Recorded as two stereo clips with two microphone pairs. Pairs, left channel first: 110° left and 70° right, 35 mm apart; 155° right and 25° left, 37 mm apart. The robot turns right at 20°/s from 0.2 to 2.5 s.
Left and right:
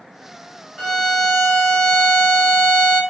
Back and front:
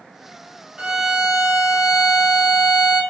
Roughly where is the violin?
Ahead right.